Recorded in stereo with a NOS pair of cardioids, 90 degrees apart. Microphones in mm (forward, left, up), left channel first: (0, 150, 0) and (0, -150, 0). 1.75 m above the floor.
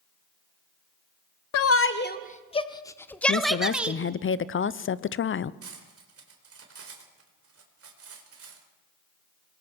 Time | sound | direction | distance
1.5 | a shout | 55° left | 0.9 m
3.3 | a woman speaking | 40° left | 0.8 m
5.6 | cutlery clinking | 50° right | 4 m